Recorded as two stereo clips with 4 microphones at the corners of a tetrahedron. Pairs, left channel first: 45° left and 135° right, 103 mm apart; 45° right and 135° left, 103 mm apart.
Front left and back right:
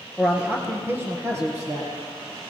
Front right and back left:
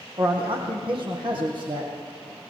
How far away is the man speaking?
About 2.5 m.